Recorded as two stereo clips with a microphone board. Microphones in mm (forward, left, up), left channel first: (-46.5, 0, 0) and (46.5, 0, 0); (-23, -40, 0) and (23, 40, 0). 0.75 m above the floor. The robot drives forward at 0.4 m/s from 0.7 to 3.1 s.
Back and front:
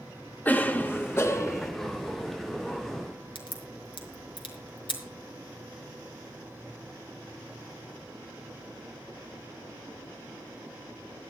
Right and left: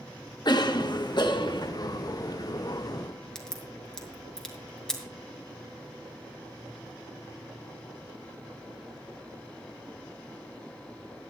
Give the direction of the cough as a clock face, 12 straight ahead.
4 o'clock.